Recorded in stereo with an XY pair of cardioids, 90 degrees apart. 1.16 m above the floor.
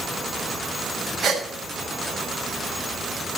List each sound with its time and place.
1.2 s a gasp: 45° right, 5.5 m